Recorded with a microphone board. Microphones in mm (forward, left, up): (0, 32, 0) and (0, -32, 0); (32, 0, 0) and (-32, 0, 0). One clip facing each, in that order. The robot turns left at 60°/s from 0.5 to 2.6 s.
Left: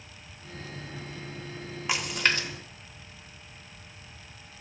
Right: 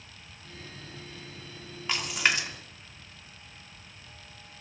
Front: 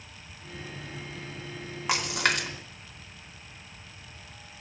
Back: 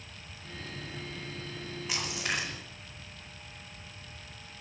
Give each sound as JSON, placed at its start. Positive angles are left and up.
{"t": 1.9, "sound": "a splash", "azimuth_deg": 15, "distance_m": 2.5}